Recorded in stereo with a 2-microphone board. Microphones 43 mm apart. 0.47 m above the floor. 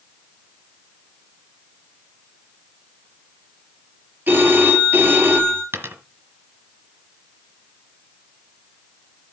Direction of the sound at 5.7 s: 85° right.